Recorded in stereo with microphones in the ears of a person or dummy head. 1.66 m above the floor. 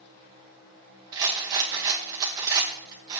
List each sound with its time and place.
1.1 s a rattle: 20° right (ahead or behind), 0.9 m